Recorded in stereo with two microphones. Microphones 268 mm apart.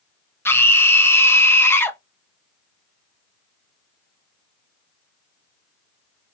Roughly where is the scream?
Centre.